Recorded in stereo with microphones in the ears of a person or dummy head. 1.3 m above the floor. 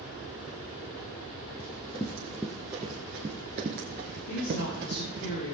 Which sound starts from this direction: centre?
Running footsteps, at 1.6 s.